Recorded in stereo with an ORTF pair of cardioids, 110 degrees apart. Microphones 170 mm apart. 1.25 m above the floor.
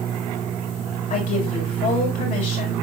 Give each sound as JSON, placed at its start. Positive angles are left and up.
{"t": 1.1, "sound": "a woman speaking", "azimuth_deg": 50, "distance_m": 6.0}